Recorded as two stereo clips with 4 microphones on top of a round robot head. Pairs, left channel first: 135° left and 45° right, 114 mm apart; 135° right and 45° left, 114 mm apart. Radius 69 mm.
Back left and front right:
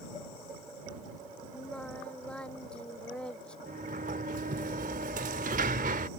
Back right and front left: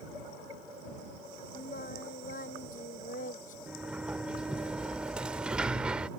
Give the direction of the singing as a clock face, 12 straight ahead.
5 o'clock.